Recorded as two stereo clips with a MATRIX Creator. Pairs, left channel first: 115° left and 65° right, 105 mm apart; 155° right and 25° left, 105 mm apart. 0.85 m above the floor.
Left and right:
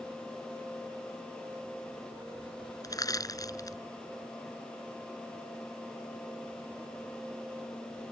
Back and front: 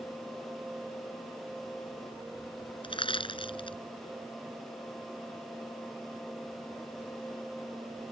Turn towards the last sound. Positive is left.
turn(degrees=170)